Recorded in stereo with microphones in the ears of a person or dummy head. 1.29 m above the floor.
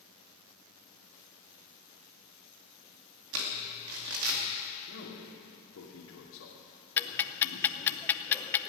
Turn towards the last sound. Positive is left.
turn(degrees=10)  # may be behind; listen again after turning